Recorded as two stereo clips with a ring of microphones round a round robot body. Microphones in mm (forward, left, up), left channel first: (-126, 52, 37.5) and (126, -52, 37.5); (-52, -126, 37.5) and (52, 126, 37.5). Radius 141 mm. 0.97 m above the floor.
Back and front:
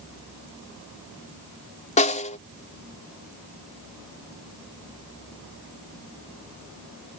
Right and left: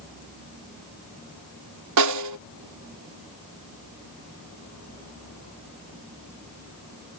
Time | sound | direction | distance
2.0 | a snare drum | 90° left | ?